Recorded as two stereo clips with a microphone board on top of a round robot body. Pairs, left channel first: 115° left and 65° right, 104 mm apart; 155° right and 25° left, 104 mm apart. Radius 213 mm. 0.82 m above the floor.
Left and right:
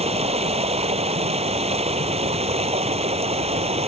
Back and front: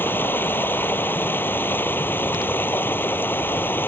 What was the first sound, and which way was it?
Running water, 85° right.